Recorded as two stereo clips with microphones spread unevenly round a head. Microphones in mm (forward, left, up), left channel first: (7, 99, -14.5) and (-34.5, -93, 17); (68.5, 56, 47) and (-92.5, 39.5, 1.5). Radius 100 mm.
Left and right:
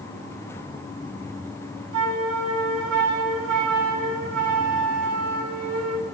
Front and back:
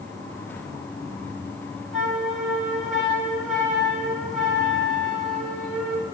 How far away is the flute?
About 2 m.